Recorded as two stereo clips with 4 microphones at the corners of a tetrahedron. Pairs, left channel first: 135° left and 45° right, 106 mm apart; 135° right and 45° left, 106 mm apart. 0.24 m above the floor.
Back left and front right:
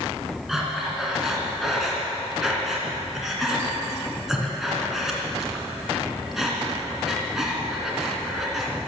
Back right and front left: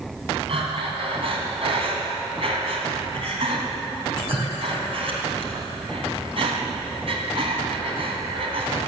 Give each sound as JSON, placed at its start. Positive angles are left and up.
{"t": 0.5, "sound": "breathing", "azimuth_deg": 40, "distance_m": 2.5}